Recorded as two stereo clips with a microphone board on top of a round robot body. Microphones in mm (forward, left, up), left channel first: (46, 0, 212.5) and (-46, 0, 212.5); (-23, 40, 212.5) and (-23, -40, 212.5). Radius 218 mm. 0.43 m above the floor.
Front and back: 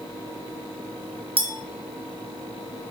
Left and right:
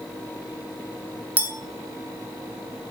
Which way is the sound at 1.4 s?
165° right.